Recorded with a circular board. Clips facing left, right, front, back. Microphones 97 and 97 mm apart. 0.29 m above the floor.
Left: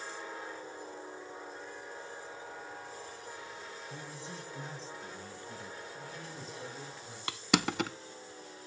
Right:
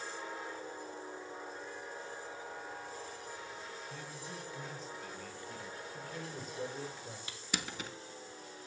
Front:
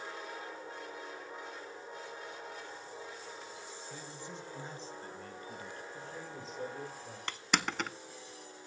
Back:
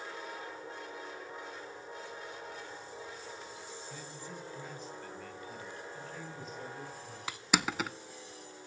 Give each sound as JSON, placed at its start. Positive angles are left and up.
{"t": 3.9, "sound": "a man speaking", "azimuth_deg": 60, "distance_m": 0.9}
{"t": 5.9, "sound": "a man speaking", "azimuth_deg": -60, "distance_m": 7.5}
{"t": 7.3, "sound": "crushing", "azimuth_deg": 95, "distance_m": 0.5}